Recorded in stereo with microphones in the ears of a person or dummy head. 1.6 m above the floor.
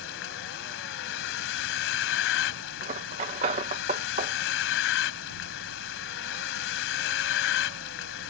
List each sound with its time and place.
0.0 s a vehicle: 70° left (ahead or behind)
2.8 s cutlery clinking: 30° right (ahead or behind)